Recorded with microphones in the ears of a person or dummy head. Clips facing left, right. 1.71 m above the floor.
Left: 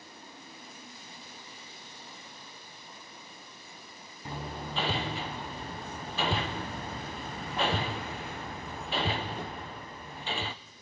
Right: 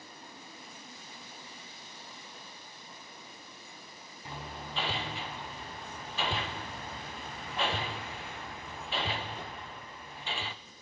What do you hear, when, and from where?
4.2 s hammering: 30° left (ahead or behind), 0.6 m